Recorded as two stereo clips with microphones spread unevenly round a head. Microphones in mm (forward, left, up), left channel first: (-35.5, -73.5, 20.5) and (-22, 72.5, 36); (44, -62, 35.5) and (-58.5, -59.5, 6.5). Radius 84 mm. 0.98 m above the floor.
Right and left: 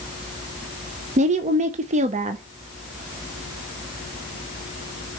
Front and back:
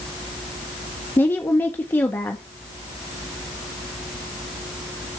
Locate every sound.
1.2 s a woman speaking: 85° left, 0.7 m